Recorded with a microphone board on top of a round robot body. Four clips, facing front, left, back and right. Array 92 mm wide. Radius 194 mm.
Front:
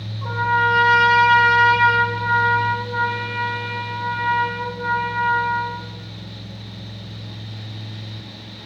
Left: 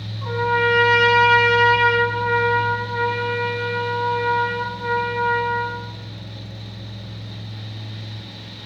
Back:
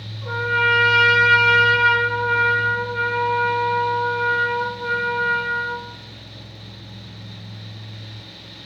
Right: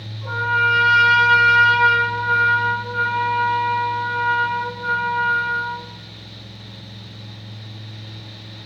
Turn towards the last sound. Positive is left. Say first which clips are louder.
# even, front 2 dB
turn(degrees=30)